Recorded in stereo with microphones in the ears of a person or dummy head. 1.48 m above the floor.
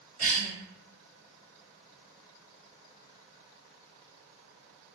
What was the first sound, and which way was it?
A cough, 35° right (ahead or behind).